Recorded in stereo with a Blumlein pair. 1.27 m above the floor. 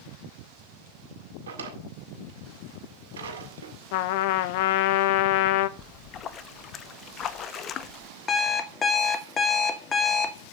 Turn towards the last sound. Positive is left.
turn(degrees=20)